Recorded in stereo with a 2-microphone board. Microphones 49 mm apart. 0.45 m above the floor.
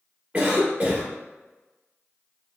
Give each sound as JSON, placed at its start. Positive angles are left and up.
{"t": 0.3, "sound": "a cough", "side_deg": -25, "distance_m": 1.0}